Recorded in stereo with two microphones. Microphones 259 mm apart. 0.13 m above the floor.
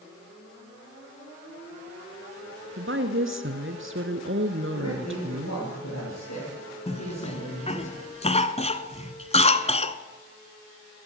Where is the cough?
25° left (ahead or behind), 1.2 m.